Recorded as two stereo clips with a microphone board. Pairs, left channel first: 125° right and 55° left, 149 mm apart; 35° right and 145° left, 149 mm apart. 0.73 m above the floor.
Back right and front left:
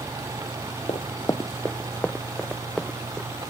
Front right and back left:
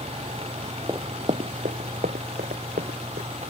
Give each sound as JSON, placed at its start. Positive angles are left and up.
{"t": 0.9, "sound": "running footsteps", "azimuth_deg": -155}